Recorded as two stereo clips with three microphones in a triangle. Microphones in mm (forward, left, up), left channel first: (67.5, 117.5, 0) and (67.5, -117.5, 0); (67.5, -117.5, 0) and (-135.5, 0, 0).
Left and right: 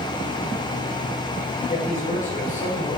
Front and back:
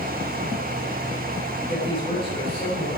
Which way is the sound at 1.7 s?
35° left.